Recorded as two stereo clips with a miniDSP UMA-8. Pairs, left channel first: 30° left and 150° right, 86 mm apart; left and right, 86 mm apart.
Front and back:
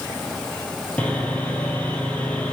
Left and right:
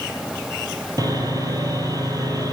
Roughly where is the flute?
No flute in this recording.